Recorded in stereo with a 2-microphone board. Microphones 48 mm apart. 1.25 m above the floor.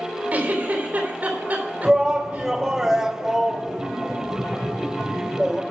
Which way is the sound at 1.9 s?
10° right (ahead or behind).